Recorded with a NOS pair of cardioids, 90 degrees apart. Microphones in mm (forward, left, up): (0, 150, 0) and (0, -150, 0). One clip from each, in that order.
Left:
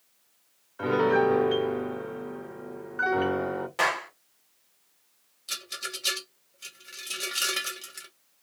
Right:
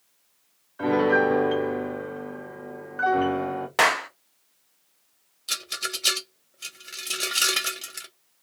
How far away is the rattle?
About 0.8 m.